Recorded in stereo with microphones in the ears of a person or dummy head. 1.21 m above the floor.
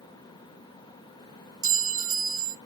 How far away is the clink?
About 0.7 m.